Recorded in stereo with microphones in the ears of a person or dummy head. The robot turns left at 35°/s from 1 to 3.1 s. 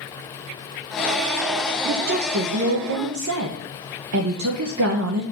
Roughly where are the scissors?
No scissors in this recording.